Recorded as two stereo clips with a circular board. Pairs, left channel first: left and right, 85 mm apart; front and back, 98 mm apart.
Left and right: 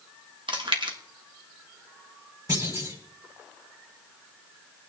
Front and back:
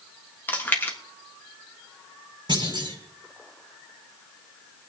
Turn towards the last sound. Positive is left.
turn(degrees=-140)